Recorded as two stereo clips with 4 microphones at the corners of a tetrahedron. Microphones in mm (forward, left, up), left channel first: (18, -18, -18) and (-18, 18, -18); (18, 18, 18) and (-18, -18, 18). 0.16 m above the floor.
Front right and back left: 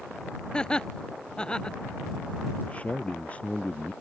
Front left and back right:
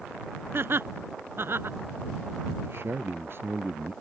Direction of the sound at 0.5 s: 115° right.